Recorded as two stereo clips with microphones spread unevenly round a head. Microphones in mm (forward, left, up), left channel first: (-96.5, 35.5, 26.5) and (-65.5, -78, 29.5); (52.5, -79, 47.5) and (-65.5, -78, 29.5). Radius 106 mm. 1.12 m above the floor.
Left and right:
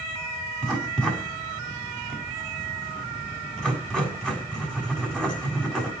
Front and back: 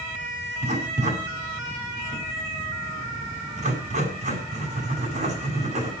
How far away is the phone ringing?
I don't hear a phone ringing.